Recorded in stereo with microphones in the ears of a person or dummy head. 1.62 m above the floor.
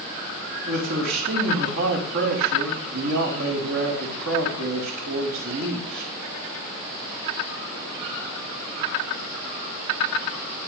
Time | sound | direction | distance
0.7 | a man speaking | 70° right (ahead or behind) | 4.5 m